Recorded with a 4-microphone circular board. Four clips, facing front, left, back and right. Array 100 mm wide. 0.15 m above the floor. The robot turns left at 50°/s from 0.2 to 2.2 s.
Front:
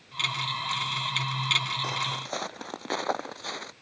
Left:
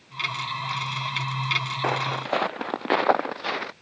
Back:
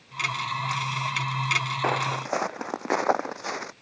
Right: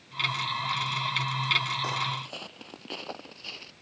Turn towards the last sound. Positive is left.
turn(degrees=110)